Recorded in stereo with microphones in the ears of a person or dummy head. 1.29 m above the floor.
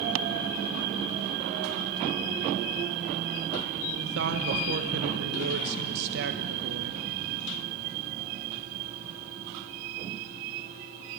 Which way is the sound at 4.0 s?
65° right (ahead or behind).